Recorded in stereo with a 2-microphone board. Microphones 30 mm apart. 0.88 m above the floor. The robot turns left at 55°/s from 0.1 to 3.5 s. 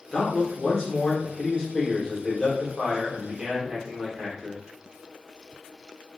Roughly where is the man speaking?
Left.